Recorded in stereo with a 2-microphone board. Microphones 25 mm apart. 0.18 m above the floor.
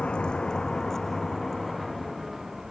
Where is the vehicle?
50° left (ahead or behind); by 2.7 s 10° right (ahead or behind).